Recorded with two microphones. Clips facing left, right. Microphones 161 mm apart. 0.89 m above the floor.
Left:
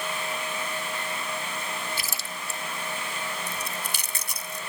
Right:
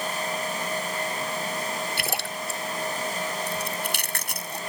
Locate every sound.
2.0 s a splash: 65° right (ahead or behind)
3.5 s chewing: 70° right (ahead or behind)